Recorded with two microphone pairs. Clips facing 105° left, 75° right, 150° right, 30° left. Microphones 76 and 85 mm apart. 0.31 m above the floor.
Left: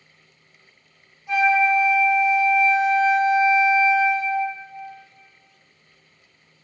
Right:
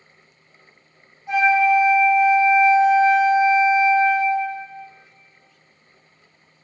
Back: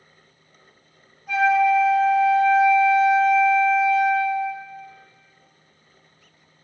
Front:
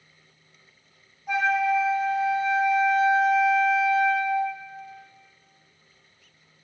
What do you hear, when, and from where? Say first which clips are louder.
1.3 s a flute: right 2 dB, back 5 dB; 35° right, 1.4 m